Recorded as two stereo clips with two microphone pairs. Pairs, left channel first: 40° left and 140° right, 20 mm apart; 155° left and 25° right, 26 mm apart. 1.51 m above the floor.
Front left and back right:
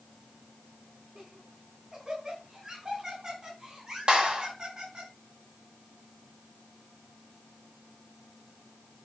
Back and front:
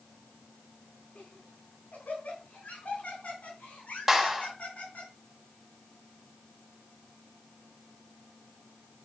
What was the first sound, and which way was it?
Laughter, 160° left.